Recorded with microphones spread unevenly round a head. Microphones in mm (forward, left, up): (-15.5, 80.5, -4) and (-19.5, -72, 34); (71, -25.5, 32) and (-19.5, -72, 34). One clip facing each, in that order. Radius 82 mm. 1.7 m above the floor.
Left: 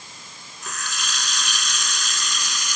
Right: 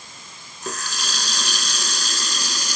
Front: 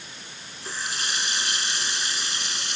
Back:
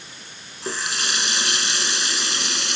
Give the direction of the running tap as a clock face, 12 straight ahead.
5 o'clock.